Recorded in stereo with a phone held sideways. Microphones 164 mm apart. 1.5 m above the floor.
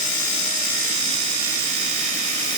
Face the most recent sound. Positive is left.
No sound to turn to.